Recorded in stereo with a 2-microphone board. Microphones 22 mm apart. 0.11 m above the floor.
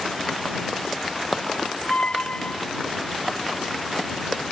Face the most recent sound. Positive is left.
turn(degrees=55)  # may be behind; listen again after turning